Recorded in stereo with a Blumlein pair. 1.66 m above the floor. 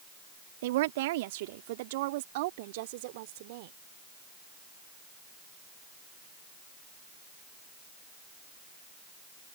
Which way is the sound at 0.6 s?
55° right.